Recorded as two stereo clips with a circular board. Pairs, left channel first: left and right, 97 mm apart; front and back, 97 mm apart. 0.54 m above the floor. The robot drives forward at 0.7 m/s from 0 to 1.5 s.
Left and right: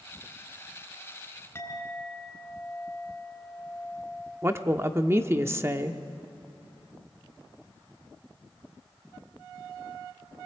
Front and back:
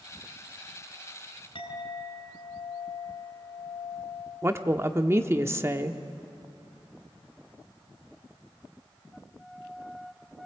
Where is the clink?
25° left, 4 m.